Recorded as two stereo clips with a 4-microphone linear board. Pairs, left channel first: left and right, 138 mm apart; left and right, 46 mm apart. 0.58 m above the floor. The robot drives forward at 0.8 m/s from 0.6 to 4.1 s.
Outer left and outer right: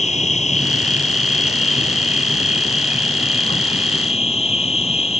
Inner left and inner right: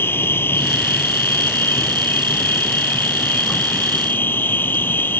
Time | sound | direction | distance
0.0 | an insect | 55° left (ahead or behind) | ?